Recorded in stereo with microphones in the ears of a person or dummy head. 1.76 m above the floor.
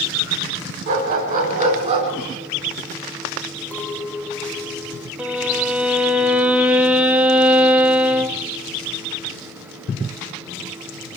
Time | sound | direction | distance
0.9 | a dog barking | 45° right (ahead or behind) | 4.5 m
3.7 | a clink | 5° left (ahead or behind) | 1.4 m
5.2 | a violin | 10° right (ahead or behind) | 1.1 m